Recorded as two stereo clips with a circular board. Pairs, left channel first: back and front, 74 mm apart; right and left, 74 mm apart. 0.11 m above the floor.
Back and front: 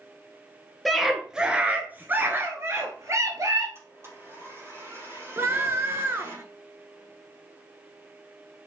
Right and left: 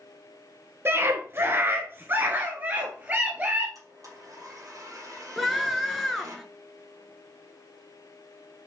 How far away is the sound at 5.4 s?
About 1.5 m.